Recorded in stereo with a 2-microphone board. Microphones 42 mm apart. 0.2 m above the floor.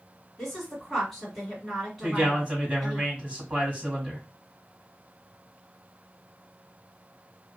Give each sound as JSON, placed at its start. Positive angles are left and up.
{"t": 0.4, "sound": "a woman speaking", "side_deg": 0, "distance_m": 2.0}
{"t": 2.0, "sound": "a man speaking", "side_deg": -30, "distance_m": 1.2}